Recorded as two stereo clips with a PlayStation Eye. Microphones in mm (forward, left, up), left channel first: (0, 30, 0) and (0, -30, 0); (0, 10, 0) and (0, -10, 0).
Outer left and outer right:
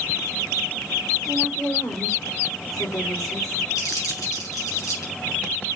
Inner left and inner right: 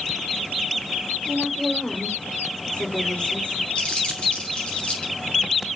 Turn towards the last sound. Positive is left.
turn(degrees=80)